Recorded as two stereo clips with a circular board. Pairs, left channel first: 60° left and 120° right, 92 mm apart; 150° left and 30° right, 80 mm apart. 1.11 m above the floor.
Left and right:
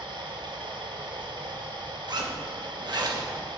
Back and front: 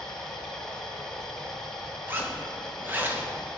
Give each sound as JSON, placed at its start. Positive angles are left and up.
{"t": 0.0, "sound": "running water", "azimuth_deg": -125, "distance_m": 1.8}
{"t": 2.1, "sound": "a zipper", "azimuth_deg": -90, "distance_m": 1.2}